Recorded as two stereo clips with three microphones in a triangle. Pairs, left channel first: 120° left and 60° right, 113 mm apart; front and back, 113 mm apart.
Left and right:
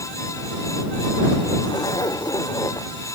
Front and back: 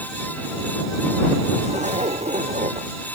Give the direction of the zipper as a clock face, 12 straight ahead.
6 o'clock.